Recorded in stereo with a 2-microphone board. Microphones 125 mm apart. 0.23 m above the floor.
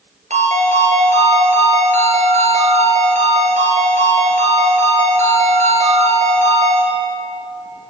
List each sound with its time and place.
0.3 s a ringtone: 65° right (ahead or behind), 2 m